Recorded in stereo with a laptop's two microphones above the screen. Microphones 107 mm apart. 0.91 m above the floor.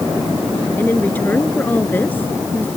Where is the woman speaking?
15° left (ahead or behind).